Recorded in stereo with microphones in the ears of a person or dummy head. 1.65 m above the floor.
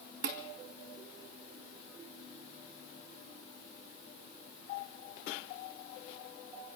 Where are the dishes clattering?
65° right (ahead or behind), 2 m.